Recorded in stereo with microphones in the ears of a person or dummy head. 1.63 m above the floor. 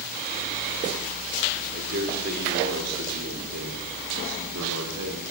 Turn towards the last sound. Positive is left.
turn(degrees=-75)  # may be behind; listen again after turning